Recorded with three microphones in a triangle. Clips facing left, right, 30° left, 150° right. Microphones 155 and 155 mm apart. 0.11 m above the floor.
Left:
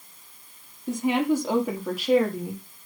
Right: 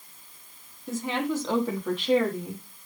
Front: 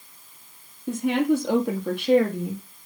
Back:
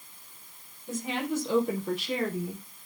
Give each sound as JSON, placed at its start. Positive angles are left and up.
{"t": 0.9, "sound": "a woman speaking", "azimuth_deg": 20, "distance_m": 3.0}